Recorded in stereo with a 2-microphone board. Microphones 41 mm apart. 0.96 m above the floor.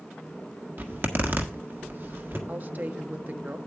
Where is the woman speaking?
45° right (ahead or behind), 0.8 m.